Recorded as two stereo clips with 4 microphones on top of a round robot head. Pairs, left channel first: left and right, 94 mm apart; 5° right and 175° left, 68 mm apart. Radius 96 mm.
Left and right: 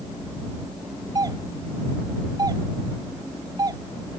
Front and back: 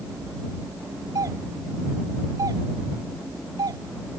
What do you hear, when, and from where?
1.1 s a doorbell: 140° right